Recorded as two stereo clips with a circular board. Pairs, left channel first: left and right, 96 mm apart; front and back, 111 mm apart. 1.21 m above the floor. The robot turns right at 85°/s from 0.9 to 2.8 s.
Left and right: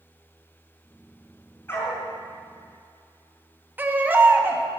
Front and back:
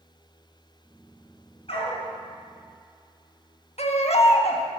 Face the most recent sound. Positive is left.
turn(degrees=-20)